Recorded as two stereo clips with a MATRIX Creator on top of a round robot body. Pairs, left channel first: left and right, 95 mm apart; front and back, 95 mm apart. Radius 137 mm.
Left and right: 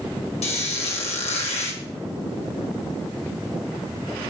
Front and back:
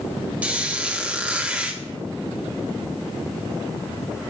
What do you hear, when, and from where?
0.4 s a squeak: 105° left, 2 m